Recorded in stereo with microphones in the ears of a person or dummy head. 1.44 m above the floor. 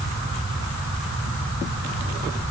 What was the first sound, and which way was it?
Only background noise.